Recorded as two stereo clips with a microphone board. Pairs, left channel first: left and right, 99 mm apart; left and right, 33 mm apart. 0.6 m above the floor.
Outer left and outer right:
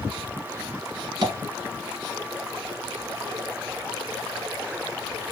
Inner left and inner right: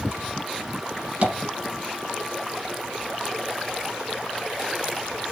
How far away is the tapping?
About 1.3 m.